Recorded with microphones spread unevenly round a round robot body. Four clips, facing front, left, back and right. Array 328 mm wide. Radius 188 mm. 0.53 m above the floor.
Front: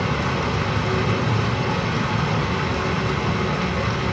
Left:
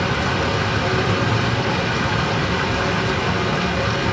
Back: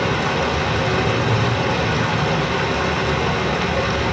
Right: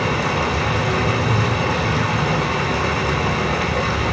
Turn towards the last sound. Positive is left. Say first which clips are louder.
# right 1 dB, back 3 dB
turn(degrees=-145)